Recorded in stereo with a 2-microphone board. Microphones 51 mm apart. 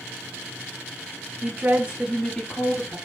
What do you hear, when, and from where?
1.4 s a woman speaking: 50° right (ahead or behind), 0.9 m; by 3.0 s 50° left (ahead or behind), 1.1 m